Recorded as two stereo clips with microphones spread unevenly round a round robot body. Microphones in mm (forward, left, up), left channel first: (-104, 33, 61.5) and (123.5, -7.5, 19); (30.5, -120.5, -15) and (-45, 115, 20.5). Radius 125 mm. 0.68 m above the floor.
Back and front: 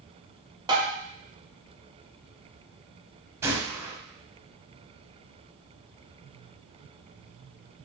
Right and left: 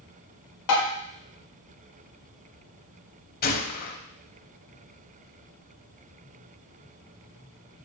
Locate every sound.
0.7 s tapping: 85° right, 1.2 m
3.4 s a gunshot: 100° right, 0.5 m